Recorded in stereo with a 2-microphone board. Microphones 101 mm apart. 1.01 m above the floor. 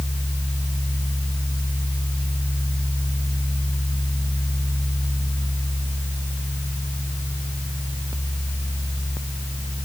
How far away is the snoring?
No snoring in this recording.